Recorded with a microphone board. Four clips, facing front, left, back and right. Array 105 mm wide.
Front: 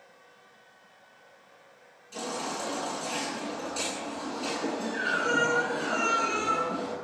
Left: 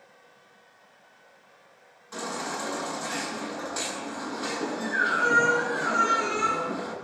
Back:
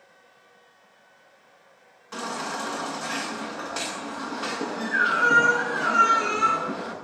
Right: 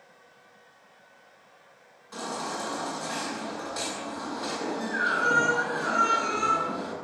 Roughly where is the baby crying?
Behind.